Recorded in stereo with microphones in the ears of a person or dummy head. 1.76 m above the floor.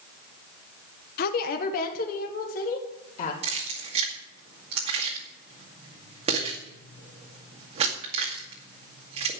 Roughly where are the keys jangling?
Right.